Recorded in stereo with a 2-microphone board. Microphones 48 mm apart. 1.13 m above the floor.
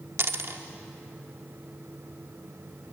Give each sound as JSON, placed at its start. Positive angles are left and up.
{"t": 0.2, "sound": "a dropped coin", "side_deg": -60, "distance_m": 1.2}